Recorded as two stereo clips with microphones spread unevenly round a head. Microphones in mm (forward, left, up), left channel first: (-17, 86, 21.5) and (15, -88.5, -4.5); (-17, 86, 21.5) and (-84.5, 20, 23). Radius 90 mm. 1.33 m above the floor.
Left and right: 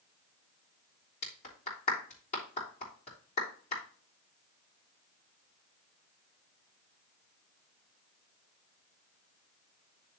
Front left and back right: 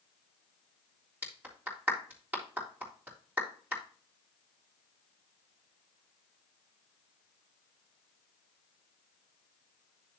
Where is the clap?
150° left, 3.5 m.